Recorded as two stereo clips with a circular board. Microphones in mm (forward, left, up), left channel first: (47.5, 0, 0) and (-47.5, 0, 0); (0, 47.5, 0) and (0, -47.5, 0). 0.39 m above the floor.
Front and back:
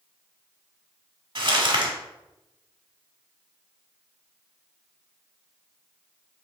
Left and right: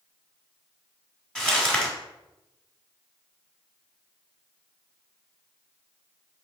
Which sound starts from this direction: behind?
Crumpling, at 1.4 s.